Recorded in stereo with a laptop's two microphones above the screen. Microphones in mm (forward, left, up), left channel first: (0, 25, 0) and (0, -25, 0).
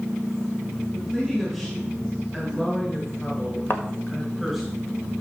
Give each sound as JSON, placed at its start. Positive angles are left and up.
{"t": 0.9, "sound": "a woman speaking", "side_deg": 15, "distance_m": 7.5}
{"t": 3.7, "sound": "a thud", "side_deg": 50, "distance_m": 1.5}